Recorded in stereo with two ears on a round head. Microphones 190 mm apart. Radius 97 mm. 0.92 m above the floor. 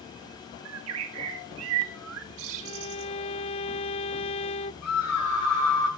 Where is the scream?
75° left (ahead or behind), 7 m.